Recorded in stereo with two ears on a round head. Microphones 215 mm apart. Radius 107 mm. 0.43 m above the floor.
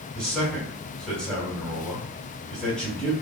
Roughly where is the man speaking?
Centre.